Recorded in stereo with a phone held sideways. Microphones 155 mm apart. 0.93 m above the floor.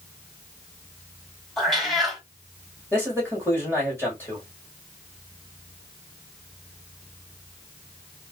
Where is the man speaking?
15° left (ahead or behind), 2.0 m.